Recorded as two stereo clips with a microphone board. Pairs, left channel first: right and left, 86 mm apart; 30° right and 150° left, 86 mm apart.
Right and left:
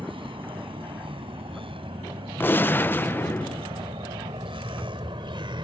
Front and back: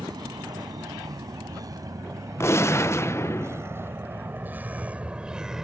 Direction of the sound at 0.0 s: 110° left.